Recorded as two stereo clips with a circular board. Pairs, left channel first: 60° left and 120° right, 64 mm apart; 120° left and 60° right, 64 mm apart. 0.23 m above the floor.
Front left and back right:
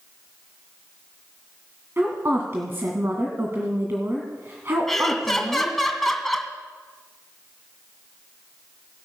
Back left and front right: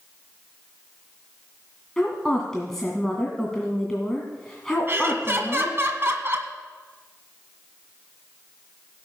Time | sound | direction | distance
2.0 | a woman speaking | 160° right | 1.9 m
4.9 | laughter | 25° right | 1.9 m